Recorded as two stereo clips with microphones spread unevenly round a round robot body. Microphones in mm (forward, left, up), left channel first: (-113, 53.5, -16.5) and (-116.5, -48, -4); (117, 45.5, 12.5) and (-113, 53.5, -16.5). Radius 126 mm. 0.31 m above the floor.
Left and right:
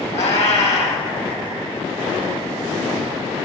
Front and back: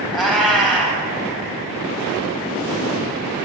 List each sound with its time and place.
0.1 s a cat meowing: 85° left, 3 m